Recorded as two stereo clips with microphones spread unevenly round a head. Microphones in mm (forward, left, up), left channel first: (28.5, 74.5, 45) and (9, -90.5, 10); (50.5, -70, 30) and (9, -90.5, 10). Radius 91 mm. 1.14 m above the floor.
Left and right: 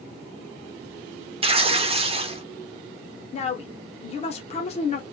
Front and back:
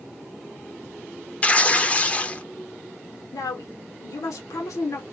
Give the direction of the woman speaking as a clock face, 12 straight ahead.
11 o'clock.